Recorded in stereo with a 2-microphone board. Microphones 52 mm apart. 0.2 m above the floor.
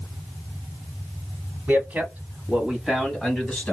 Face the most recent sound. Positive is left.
turn(degrees=10)  # may be behind; listen again after turning